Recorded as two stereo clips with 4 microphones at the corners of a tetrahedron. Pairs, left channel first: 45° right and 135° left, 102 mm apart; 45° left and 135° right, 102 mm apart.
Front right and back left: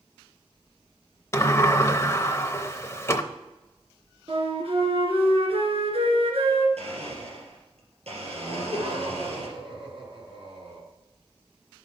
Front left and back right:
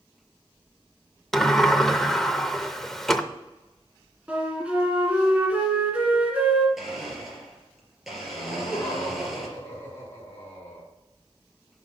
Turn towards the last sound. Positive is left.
turn(degrees=110)